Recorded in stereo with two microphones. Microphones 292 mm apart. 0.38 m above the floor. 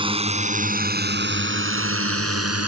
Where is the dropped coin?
No dropped coin in this recording.